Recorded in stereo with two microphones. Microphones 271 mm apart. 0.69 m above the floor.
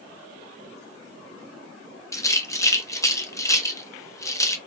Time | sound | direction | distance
2.1 | a rattle | 10° left (ahead or behind) | 0.7 m